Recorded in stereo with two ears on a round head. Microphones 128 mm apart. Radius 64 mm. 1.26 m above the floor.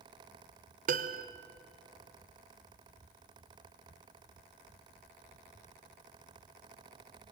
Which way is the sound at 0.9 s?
65° right (ahead or behind).